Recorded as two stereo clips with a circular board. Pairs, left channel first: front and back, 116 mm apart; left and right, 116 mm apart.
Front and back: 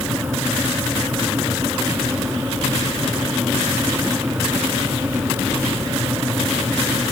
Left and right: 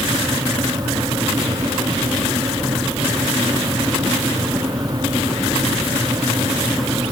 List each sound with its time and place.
Only background noise.